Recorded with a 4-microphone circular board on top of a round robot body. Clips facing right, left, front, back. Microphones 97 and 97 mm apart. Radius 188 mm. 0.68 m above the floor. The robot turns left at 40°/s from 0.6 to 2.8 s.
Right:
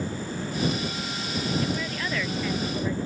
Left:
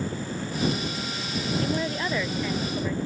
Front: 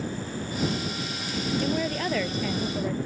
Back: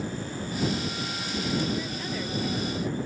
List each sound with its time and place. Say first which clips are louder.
1.6 s a woman speaking: left 2 dB, front 4 dB; 40° left; by 3.0 s 10° right